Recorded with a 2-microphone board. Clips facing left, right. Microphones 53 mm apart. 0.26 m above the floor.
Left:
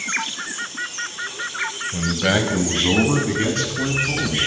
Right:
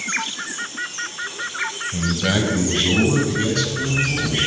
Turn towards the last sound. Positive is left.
turn(degrees=40)  # may be behind; listen again after turning